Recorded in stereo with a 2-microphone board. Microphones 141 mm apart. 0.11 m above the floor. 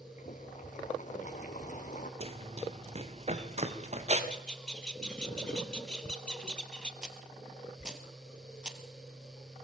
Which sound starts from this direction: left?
Boiling, at 0.2 s.